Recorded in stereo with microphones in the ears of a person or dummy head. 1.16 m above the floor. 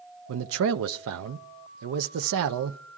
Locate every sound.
0.3 s a man speaking: 70° right (ahead or behind), 0.6 m